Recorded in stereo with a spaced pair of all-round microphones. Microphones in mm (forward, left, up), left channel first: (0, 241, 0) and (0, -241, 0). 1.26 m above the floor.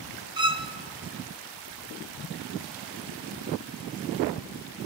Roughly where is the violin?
Right.